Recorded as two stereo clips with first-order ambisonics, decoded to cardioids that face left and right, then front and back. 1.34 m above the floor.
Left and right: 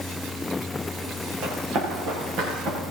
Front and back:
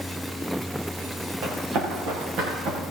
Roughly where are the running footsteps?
Behind right.